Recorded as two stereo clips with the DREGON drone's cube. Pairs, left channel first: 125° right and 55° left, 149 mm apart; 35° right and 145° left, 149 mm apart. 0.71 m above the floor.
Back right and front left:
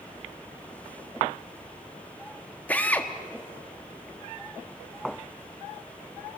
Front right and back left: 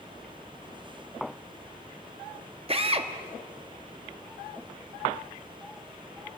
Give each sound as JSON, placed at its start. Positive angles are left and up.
{"t": 2.7, "sound": "a drill", "azimuth_deg": 160, "distance_m": 1.2}